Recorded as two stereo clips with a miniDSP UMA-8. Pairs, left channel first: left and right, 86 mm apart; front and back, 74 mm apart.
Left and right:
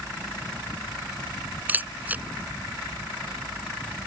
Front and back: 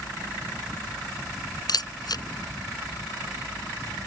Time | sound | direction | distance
1.7 | a camera shutter | 20° right | ?